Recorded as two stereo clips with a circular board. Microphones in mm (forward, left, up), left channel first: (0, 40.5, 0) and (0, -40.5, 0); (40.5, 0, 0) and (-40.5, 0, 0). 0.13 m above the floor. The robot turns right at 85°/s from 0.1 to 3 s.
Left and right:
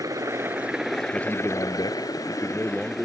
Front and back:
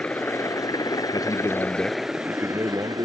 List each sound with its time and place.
0.0 s a helicopter: 65° right; by 3.0 s 175° left
1.1 s a man speaking: 15° left; by 3.0 s 175° left